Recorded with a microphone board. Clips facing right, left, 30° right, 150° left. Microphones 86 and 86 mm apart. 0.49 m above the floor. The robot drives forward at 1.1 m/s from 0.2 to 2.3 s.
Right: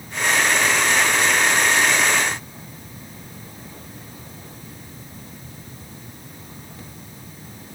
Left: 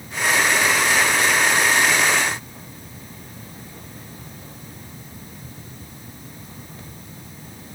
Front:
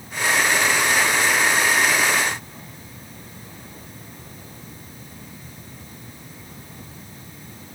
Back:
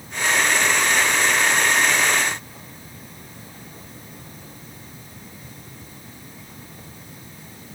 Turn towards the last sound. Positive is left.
No sound to turn to.